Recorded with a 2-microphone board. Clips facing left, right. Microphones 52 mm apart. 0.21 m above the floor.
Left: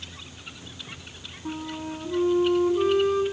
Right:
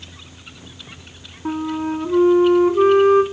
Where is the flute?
50° right (ahead or behind), 1.1 m.